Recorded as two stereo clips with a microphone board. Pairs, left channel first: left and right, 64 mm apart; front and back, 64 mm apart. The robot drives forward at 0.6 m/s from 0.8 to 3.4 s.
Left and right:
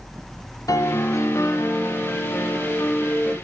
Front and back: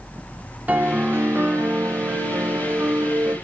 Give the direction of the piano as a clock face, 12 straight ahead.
8 o'clock.